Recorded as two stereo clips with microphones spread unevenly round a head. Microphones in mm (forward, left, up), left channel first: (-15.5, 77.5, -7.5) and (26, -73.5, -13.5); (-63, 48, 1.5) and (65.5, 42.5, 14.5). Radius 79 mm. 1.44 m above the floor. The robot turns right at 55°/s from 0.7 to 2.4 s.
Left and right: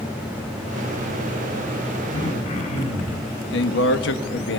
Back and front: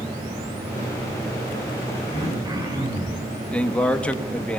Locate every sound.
2.1 s throat clearing: 40° left, 6 m; by 3.3 s 55° left, 6 m
3.5 s a man speaking: 95° left, 1.7 m